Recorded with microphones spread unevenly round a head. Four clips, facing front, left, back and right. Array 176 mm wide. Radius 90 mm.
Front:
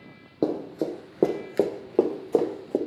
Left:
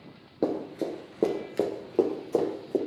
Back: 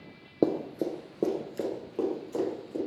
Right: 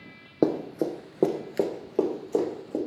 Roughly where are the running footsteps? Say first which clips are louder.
Right 4 dB, front 1 dB; behind right.